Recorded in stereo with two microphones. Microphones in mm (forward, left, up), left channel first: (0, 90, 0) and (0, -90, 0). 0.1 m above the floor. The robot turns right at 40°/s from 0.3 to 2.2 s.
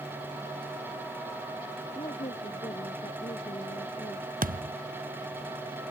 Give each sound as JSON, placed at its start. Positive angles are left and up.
{"t": 1.9, "sound": "a woman speaking", "side_deg": 25}
{"t": 4.4, "sound": "a thud", "side_deg": -50}